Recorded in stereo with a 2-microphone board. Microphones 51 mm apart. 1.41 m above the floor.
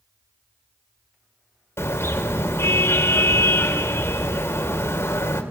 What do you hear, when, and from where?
1.8 s a car horn: 55° left (ahead or behind), 3 m